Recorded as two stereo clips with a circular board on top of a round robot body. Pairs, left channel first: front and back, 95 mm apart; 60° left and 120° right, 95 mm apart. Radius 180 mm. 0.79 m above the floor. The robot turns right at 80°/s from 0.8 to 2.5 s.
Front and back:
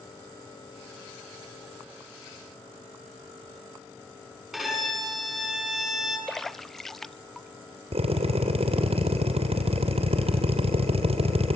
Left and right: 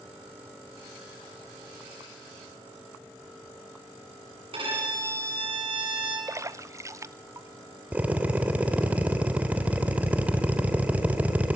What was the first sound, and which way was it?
A violin, 95° right.